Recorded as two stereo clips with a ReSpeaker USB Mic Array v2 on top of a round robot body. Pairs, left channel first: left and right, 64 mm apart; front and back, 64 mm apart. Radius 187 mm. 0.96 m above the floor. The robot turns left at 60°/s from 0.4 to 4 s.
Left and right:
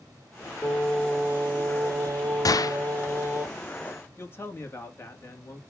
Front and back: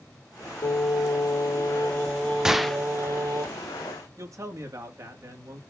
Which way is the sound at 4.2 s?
140° left.